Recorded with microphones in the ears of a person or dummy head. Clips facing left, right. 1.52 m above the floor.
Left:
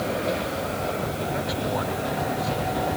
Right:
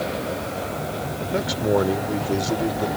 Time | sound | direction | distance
1.3 | a man speaking | 50° right (ahead or behind) | ?